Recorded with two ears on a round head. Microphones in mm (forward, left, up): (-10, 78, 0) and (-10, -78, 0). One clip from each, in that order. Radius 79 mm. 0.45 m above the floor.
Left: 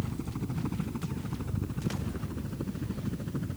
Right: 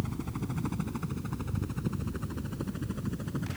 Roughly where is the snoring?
No snoring in this recording.